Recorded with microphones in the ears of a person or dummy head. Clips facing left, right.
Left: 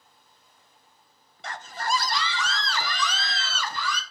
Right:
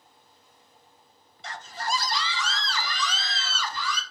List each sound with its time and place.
1.4 s a scream: 40° left (ahead or behind), 0.8 m; by 4.0 s 45° left (ahead or behind), 3 m